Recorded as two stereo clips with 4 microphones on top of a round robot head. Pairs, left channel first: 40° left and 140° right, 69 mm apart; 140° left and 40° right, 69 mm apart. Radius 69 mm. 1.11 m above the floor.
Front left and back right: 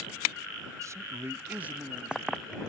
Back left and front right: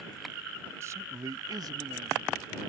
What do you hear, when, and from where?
0.8 s a man speaking: 95° right; by 2.3 s 60° right